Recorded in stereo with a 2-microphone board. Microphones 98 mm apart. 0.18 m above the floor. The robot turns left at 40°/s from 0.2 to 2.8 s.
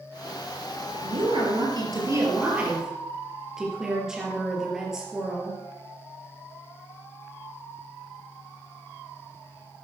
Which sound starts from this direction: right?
A woman speaking, at 1.0 s.